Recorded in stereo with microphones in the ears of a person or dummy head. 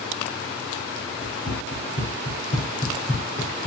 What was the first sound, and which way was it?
Running footsteps, 55° left (ahead or behind).